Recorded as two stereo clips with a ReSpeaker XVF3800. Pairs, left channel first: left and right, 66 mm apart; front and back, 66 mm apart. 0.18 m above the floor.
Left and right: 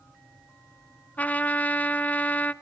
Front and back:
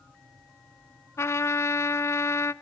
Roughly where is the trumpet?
Ahead left.